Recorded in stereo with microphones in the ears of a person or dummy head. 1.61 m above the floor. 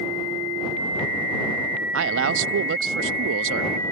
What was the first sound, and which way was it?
A man speaking, 75° right (ahead or behind).